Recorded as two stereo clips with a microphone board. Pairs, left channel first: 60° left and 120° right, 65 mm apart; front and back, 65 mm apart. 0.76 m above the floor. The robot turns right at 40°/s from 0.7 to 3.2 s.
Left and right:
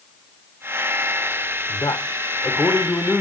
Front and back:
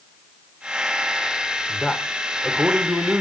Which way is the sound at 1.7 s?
70° left.